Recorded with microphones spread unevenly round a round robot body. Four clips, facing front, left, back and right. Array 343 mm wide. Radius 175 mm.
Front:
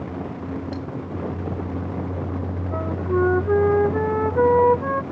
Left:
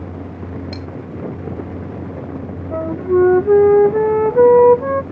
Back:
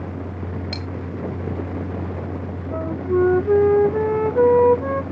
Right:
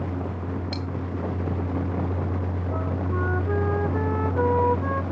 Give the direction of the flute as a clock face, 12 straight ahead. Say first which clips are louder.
Left 15 dB, back 2 dB; 9 o'clock.